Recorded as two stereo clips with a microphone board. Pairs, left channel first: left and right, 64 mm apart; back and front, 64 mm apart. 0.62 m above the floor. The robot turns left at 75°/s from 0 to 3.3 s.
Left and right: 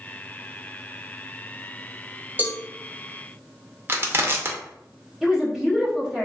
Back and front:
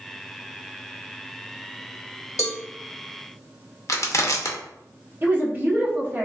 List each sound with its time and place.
2.4 s a cowbell: 150° right, 0.6 m; by 2.6 s 165° right, 0.6 m
3.9 s crushing: 145° right, 0.5 m
5.2 s a woman speaking: 15° right, 0.8 m